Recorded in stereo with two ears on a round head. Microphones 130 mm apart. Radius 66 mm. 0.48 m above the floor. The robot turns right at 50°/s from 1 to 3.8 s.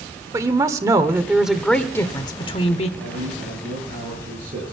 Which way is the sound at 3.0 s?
100° right.